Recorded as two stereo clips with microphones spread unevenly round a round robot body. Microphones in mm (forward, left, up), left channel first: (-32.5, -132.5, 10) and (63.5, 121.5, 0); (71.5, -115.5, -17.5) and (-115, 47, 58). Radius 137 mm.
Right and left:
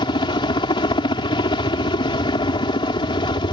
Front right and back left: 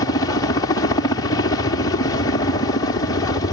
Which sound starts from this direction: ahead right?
A helicopter, at 0.0 s.